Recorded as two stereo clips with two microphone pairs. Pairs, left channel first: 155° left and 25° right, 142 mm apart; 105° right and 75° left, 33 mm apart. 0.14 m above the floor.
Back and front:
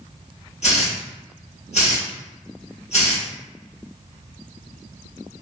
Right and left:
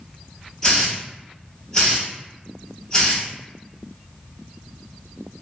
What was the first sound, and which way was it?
A hiss, 175° right.